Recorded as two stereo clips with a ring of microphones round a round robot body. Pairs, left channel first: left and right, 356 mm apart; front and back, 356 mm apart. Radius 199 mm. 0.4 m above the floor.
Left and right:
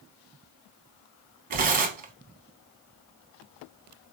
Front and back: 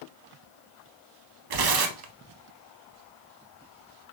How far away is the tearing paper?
About 0.6 m.